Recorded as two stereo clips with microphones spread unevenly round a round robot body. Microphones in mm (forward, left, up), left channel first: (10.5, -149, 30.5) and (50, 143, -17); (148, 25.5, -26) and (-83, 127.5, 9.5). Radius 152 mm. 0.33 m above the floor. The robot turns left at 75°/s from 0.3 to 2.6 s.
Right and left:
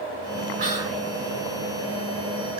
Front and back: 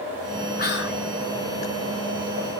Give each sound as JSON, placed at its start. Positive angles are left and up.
{"t": 0.6, "sound": "whispering", "azimuth_deg": 25, "distance_m": 3.0}